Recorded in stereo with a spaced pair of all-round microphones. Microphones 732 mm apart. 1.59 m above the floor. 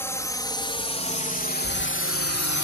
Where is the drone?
5° left (ahead or behind); by 2.6 s 25° left (ahead or behind).